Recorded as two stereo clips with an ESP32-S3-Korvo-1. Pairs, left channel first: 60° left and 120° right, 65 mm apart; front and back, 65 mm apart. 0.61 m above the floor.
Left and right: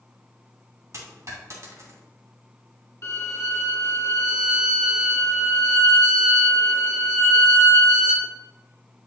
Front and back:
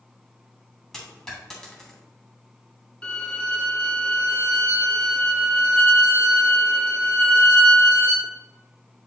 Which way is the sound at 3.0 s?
65° left.